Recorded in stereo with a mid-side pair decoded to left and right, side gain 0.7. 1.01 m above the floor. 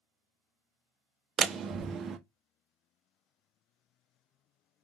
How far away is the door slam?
About 0.6 m.